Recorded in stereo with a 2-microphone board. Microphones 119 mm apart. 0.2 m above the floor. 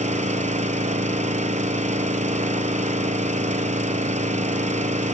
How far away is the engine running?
About 1.1 m.